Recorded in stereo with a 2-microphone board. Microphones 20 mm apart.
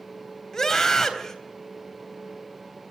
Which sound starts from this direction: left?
A scream, at 0.5 s.